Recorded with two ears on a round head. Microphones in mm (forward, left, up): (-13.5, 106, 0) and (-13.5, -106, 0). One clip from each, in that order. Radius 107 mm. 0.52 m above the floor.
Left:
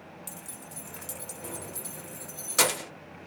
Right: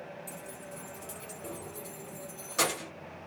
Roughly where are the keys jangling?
Left.